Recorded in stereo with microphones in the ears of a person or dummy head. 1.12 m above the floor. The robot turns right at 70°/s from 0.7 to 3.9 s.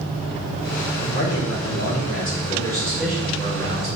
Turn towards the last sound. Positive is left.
turn(degrees=-115)